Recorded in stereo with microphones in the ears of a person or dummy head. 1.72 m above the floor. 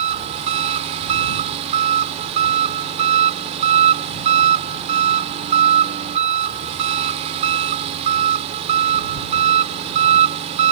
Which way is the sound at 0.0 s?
30° right (ahead or behind).